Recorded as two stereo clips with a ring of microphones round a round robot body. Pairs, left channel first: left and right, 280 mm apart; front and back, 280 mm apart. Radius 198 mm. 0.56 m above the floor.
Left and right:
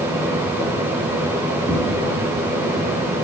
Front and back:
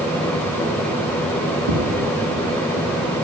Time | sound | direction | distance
1.7 | footsteps | 160° right | 4 m